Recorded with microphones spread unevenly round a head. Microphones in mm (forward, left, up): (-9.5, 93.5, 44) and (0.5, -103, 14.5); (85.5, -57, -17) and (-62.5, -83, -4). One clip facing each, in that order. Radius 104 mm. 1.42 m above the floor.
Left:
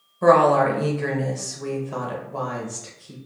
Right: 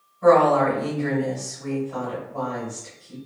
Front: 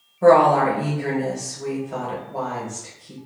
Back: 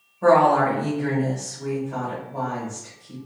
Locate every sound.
0.2 s a woman speaking: 75° left, 0.9 m